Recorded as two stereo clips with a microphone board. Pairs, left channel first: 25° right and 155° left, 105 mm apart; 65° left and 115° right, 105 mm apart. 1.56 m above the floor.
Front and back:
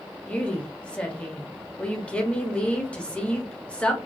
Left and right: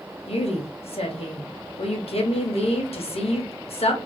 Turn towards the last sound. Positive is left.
turn(degrees=55)